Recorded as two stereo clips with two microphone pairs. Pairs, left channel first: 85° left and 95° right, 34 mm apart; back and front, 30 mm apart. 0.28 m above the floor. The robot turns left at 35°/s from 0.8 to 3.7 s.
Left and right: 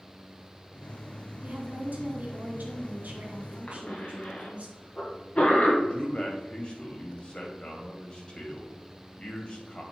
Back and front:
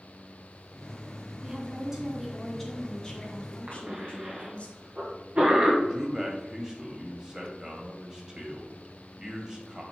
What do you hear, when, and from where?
1.4 s a woman speaking: 55° right, 2 m; by 4.7 s 140° right, 2 m
3.7 s a cough: 30° left, 2 m
5.8 s a man speaking: 60° left, 1.7 m